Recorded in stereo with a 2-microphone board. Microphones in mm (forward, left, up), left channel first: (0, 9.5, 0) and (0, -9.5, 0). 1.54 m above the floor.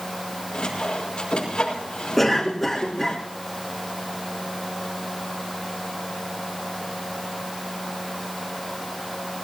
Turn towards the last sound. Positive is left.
turn(degrees=10)  # may be behind; listen again after turning